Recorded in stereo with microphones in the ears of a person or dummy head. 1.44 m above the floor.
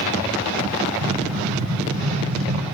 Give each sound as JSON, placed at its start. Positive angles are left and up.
{"t": 1.0, "sound": "an explosion", "side_deg": -70, "distance_m": 9.0}